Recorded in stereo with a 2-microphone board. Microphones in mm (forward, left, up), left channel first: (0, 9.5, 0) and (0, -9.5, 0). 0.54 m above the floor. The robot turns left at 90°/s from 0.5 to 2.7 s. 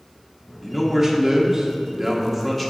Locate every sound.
0.6 s a man speaking: 5° right, 0.9 m; by 2.7 s 170° left, 0.9 m